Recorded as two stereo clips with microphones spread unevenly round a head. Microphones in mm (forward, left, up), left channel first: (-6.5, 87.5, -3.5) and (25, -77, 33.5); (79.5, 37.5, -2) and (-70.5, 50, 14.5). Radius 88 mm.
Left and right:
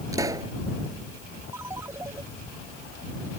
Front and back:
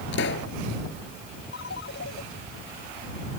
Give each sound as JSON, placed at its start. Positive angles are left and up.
{"t": 0.1, "sound": "a pop", "azimuth_deg": -10}
{"t": 1.5, "sound": "a ringtone", "azimuth_deg": -5}